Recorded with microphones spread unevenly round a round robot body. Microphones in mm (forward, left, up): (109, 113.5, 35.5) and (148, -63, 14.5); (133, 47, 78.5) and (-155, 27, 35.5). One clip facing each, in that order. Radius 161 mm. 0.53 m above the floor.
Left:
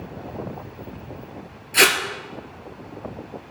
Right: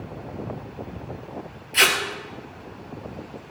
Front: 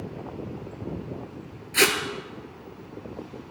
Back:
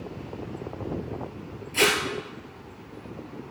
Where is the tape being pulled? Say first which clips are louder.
Left 5 dB, even; 65° left, 2 m.